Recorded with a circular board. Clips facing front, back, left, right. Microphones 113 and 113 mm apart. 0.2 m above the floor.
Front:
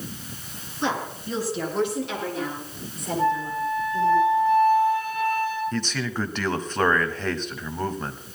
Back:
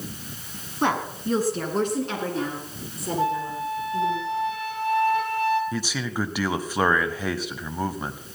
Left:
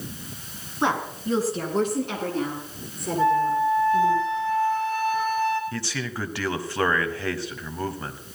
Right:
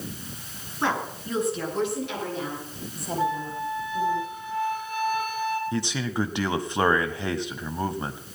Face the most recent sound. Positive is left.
turn(degrees=-110)